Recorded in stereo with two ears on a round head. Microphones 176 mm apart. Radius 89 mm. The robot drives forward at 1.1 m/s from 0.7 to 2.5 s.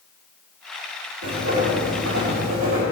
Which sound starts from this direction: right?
Writing, at 1.2 s.